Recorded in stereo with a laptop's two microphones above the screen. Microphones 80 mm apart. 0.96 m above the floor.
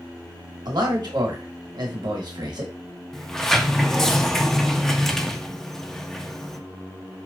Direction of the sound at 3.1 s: 5° left (ahead or behind).